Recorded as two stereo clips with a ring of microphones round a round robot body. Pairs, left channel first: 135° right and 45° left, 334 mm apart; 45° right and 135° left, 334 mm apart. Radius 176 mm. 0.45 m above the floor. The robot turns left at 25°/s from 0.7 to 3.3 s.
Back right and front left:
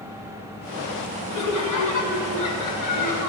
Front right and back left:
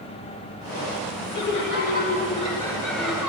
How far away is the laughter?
About 1.5 m.